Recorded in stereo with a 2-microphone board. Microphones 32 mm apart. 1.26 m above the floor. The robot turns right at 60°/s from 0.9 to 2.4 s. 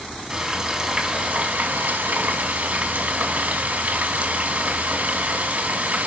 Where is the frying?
160° right, 2 m; by 6.1 s 70° right, 2 m.